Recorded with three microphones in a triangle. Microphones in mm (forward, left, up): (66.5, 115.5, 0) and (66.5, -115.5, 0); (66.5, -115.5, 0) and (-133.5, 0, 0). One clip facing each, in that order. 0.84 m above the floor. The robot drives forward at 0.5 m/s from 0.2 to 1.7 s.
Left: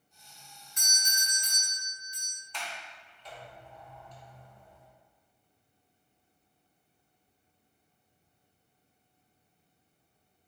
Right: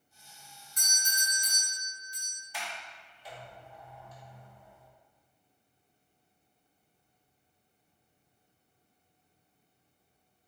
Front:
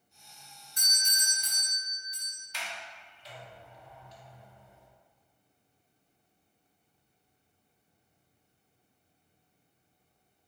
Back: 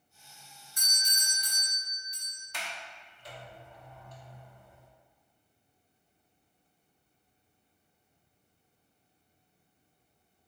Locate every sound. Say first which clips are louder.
0.8 s a doorbell: right 1 dB, front 1 dB; 80° right, 1.2 m; by 2.4 s 115° right, 1.2 m
2.5 s a sliding door: even, back 1 dB; 170° right, 0.7 m